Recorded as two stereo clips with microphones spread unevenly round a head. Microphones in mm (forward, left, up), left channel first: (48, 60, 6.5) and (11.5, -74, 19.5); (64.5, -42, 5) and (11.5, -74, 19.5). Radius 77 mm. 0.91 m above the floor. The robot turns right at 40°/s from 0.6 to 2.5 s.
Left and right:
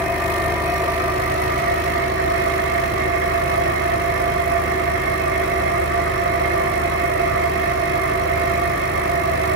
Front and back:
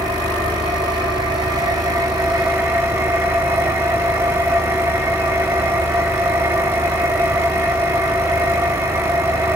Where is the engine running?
175° left, 1.1 m; by 9.6 s 110° right, 1.1 m.